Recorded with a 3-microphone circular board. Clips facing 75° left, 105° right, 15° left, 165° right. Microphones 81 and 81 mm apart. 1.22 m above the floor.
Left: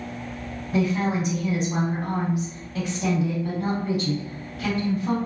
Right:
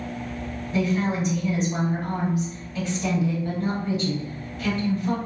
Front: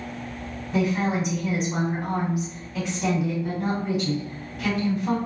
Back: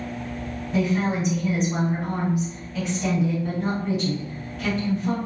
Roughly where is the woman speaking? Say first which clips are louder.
Left 1 dB, even; left.